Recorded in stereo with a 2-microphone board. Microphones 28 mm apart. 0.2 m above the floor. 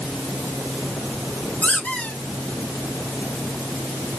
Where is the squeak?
80° left, 1.8 m.